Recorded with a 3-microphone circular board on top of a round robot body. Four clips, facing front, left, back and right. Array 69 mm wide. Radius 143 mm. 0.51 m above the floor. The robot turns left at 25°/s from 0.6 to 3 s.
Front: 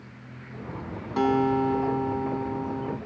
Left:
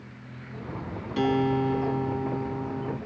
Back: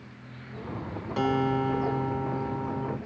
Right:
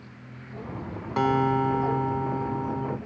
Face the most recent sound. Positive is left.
turn(degrees=-125)